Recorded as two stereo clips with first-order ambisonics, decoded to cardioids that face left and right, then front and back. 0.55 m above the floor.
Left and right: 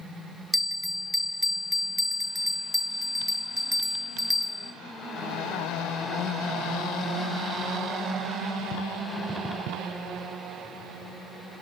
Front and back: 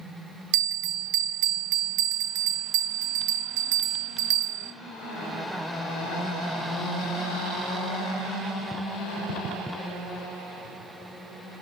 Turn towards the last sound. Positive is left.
turn(degrees=180)